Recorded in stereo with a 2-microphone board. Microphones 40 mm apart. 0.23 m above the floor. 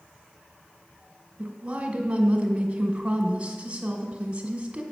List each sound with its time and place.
1.4 s a woman speaking: 30° right (ahead or behind), 2 m